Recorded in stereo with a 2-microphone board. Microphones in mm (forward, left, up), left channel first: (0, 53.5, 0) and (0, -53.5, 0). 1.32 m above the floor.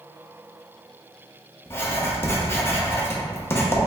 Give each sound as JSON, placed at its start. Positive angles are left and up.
{"t": 1.7, "sound": "writing", "side_deg": 25, "distance_m": 0.7}